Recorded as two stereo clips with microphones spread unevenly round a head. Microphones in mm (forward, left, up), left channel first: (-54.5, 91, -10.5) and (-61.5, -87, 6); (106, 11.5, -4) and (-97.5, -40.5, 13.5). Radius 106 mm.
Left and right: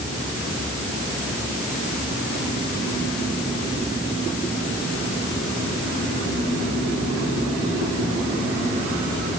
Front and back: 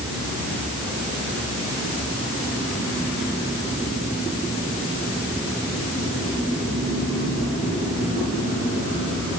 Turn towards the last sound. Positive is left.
No sound to turn to.